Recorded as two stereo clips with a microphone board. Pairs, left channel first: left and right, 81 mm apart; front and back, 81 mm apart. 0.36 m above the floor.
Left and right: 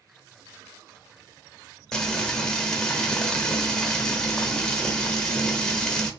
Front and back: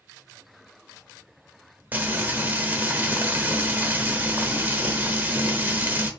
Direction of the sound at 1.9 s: 160° left.